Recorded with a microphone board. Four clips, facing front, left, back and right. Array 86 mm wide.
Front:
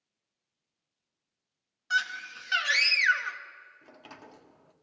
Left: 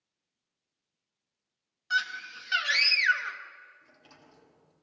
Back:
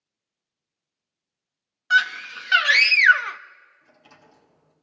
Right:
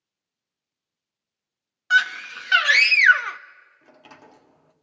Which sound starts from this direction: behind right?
A scream, at 1.9 s.